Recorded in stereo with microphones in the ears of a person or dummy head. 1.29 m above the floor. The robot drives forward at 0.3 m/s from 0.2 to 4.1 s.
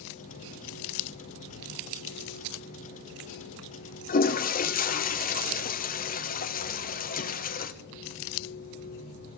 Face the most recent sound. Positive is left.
turn(degrees=45)  # may be behind; listen again after turning